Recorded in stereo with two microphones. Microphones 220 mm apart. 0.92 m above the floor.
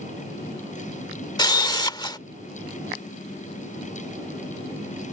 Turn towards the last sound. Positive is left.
turn(degrees=20)  # may be behind; listen again after turning